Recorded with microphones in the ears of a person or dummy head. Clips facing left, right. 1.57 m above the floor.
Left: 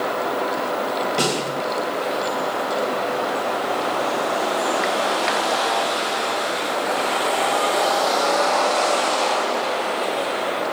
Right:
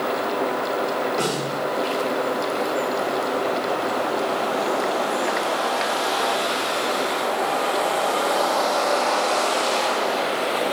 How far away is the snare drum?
About 3 m.